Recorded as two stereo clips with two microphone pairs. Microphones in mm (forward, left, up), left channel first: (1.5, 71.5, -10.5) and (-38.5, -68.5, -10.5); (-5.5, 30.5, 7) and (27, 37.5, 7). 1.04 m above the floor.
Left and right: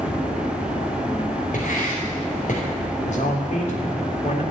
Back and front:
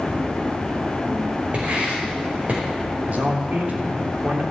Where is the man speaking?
45° left, 3 m.